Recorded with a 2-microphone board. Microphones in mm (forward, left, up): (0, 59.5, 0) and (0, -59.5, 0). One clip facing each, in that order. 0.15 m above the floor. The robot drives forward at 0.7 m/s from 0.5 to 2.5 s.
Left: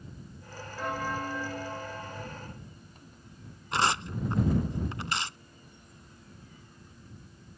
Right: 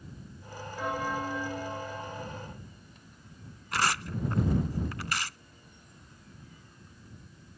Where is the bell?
5° right (ahead or behind).